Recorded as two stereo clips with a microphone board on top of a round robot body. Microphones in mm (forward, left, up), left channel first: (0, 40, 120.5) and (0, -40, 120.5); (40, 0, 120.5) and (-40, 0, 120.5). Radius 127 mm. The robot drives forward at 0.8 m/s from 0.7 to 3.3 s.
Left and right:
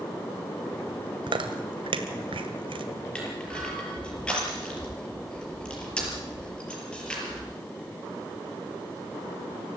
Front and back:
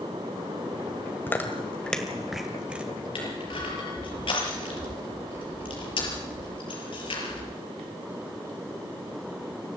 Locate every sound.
1.3 s chewing: 65° right, 2.0 m; by 2.9 s 105° right, 1.9 m
3.1 s crushing: 10° left, 6 m